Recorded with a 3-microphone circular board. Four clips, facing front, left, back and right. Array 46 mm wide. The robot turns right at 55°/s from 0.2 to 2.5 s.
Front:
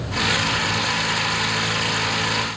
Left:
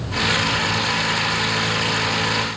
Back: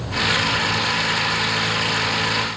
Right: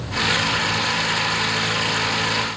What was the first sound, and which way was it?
Only background noise.